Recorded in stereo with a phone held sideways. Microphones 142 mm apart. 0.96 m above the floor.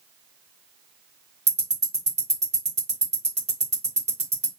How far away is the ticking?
About 1.3 m.